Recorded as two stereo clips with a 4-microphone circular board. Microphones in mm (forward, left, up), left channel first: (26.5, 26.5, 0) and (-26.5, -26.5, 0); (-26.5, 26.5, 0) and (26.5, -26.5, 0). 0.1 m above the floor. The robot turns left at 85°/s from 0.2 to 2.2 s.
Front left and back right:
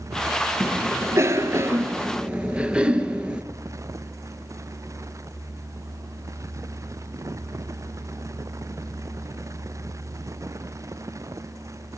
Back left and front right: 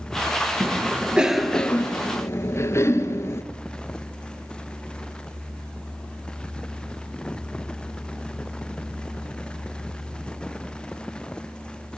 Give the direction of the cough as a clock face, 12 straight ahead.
2 o'clock.